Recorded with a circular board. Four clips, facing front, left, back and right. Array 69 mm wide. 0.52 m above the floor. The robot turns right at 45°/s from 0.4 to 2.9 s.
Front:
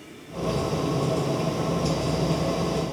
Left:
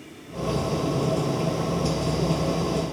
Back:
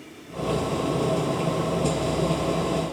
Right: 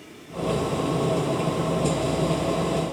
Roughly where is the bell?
I don't hear a bell.